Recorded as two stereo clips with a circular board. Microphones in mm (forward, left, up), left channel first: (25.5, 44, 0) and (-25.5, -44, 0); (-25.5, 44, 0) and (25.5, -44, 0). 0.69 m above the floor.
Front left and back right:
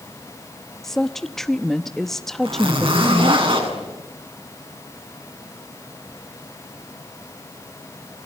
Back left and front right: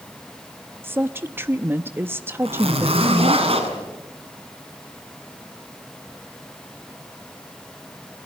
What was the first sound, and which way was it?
A woman speaking, 20° right.